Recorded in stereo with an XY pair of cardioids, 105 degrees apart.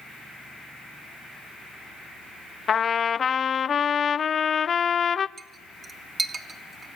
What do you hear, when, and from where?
2.7 s a trumpet: 40° left, 0.7 m
5.4 s a clink: 35° right, 1.8 m